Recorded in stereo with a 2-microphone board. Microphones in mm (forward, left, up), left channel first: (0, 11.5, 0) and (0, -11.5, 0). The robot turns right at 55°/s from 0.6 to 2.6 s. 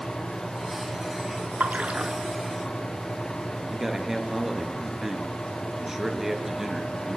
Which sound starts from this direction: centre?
A man speaking, at 3.7 s.